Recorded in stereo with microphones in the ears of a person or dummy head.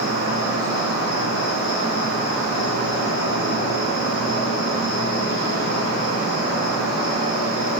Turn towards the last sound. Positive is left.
turn(degrees=75)  # may be behind; listen again after turning